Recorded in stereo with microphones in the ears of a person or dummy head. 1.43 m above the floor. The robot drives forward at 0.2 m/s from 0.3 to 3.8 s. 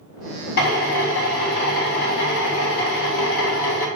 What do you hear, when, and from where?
0.6 s a drill: 50° left (ahead or behind), 2.0 m; by 3.9 s 70° left (ahead or behind), 1.7 m